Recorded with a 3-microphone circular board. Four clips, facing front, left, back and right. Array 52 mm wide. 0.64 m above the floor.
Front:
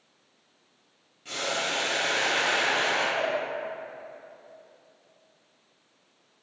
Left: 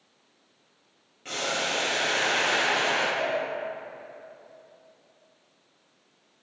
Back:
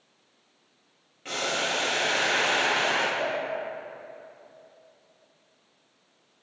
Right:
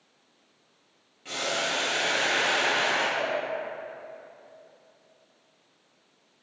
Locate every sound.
1.2 s boiling: 155° left, 0.7 m
3.2 s a cowbell: 5° right, 1.7 m